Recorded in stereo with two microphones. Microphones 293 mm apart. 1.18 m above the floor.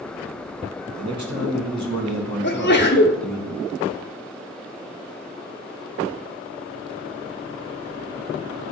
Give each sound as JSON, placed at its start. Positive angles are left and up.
{"t": 0.9, "sound": "a man speaking", "side_deg": -70, "distance_m": 1.6}
{"t": 2.4, "sound": "a sneeze", "side_deg": 40, "distance_m": 0.7}